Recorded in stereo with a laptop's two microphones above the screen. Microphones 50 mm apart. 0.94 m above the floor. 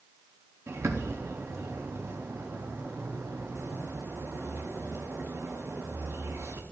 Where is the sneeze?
I don't hear a sneeze.